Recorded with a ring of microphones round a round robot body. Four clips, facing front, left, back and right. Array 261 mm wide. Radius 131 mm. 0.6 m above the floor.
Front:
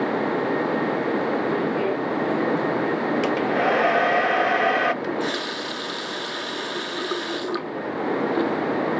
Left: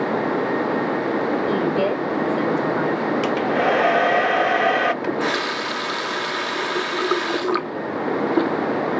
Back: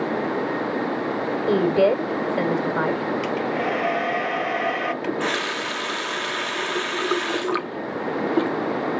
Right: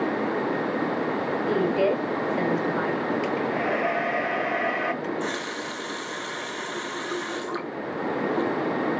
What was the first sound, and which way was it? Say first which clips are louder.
A woman speaking: right 2 dB, back 5 dB; 170° left.